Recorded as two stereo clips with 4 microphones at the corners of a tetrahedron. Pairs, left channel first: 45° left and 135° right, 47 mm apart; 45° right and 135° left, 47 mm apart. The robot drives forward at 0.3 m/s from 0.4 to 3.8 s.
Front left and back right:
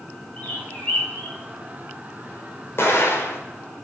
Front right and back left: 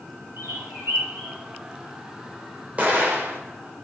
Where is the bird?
105° left, 8.5 m.